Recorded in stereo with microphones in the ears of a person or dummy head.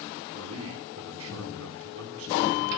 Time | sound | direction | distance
0.3 | a man speaking | 80° right | 9 m